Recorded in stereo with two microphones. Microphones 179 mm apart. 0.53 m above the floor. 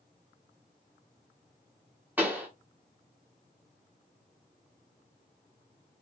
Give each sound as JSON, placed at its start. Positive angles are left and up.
{"t": 2.2, "sound": "a pop", "side_deg": -10, "distance_m": 0.9}